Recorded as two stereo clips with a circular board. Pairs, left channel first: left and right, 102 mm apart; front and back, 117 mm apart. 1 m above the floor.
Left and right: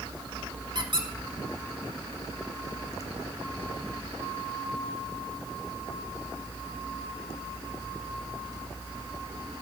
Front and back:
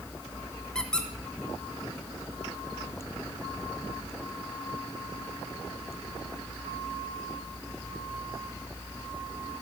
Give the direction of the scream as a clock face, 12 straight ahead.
No scream in this recording.